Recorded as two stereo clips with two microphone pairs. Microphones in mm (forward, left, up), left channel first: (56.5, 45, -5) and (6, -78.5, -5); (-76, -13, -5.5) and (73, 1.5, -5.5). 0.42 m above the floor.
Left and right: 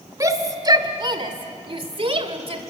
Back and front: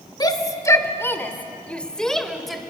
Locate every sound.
0.2 s a shout: 150° right, 1.4 m; by 2.6 s 85° right, 2 m